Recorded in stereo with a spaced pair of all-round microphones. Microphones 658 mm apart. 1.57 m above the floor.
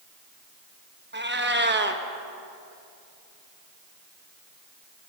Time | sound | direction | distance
1.1 | a cat meowing | 15° right (ahead or behind) | 0.9 m